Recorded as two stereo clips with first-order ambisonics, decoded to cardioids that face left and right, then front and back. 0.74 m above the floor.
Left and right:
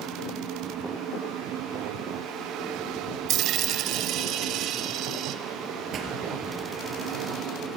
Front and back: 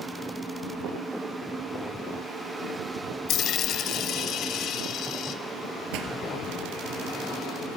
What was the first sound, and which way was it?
A dropped coin, 45° right.